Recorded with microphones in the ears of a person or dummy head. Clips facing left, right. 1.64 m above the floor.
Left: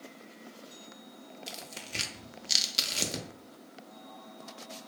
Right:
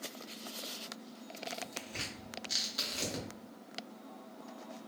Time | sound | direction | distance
1.5 | tearing paper | 35° left (ahead or behind) | 0.5 m